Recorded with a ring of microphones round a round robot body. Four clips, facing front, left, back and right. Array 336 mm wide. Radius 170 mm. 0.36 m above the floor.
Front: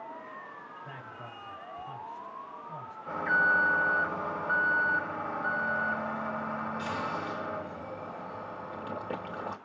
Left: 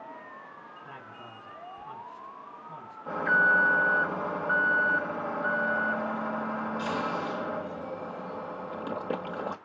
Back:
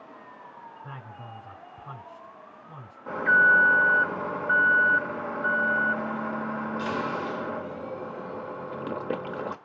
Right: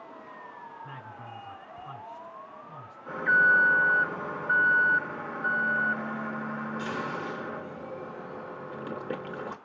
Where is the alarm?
170° left, 1.3 m.